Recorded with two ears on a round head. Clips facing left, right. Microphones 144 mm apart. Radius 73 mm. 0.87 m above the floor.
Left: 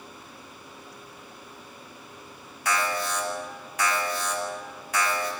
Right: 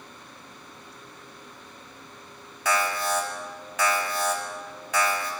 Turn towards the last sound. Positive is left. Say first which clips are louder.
# right 2 dB
turn(degrees=-70)  # may be behind; listen again after turning